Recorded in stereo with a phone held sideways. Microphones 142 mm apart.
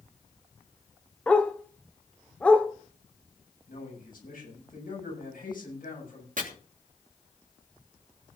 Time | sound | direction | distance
1.3 | a dog barking | 10° left (ahead or behind) | 1.7 m
3.7 | a man speaking | 85° left | 7 m
6.4 | chopping | 65° right (ahead or behind) | 3 m